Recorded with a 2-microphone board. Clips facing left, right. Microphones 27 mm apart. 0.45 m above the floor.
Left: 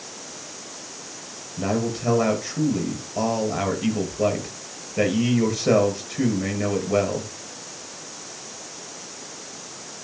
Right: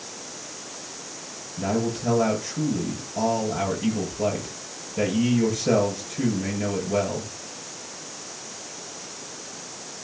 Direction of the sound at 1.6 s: 30° left (ahead or behind).